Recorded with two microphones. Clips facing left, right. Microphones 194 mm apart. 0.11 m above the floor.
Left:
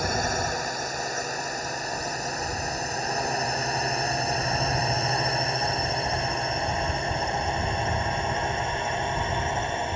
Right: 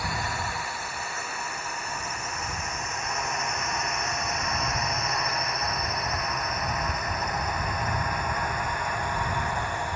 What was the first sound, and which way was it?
A drone, 45° left (ahead or behind).